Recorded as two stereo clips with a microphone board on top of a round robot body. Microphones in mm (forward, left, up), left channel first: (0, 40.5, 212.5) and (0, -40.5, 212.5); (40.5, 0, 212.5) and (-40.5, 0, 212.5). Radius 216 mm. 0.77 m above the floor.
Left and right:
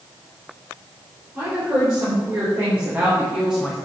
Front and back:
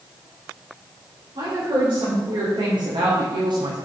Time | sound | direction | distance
1.4 | a woman speaking | 155° right | 3.5 m